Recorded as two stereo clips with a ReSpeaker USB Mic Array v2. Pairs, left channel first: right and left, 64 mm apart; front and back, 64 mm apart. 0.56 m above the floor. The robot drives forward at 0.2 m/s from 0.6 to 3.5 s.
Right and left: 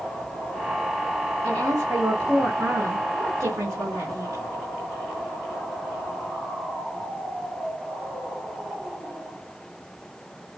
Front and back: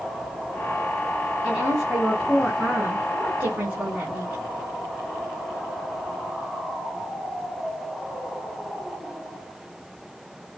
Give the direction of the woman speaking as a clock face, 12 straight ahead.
8 o'clock.